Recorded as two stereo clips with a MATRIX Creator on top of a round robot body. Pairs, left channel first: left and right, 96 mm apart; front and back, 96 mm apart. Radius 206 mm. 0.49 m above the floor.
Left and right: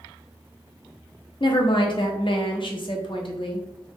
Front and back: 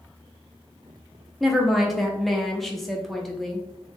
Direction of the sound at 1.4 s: 90° left.